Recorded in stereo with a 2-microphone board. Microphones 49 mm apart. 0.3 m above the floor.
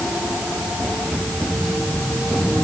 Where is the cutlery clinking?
No cutlery clinking in this recording.